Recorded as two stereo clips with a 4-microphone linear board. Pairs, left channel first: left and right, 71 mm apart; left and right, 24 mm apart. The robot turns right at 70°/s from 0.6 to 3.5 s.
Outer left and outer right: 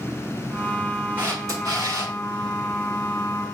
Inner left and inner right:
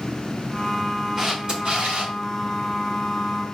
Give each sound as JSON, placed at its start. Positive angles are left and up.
{"t": 1.2, "sound": "a camera shutter", "azimuth_deg": -150, "distance_m": 2.5}